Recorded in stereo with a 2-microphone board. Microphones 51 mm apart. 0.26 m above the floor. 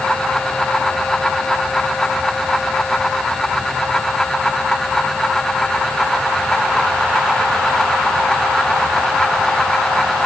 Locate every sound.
Only background noise.